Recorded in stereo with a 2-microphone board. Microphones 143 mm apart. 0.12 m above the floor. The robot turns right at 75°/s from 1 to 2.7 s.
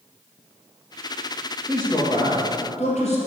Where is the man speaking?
5° right, 1.9 m; by 3.2 s 75° left, 1.9 m.